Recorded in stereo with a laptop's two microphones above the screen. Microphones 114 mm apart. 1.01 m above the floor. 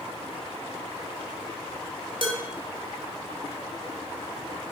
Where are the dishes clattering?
50° right (ahead or behind), 3 m.